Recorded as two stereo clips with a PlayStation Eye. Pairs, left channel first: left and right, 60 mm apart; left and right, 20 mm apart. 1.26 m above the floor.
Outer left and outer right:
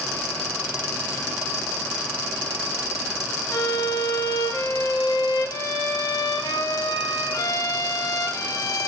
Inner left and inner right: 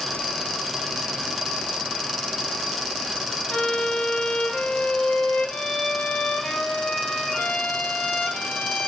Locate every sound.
3.5 s a violin: 80° left, 1.8 m